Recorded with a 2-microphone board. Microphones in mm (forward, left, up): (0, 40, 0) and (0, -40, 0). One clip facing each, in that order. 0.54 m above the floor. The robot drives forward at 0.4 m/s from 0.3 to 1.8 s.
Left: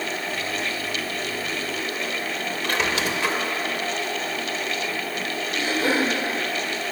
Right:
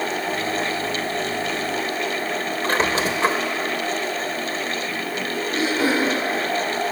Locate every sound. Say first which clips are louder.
2.6 s a squeak: right 4 dB; 35° right (ahead or behind), 1.1 m
5.5 s throat clearing: right 2 dB; 75° right (ahead or behind), 8 m